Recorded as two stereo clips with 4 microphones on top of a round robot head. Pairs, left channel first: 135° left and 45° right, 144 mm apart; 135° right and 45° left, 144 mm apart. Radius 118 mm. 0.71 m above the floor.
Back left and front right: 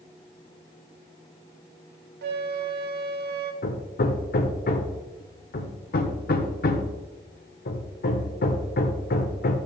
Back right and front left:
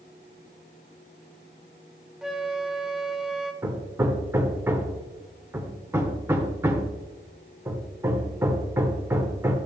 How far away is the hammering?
About 1.1 m.